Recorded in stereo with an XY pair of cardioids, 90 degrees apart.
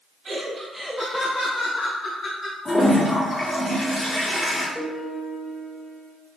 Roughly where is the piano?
Ahead.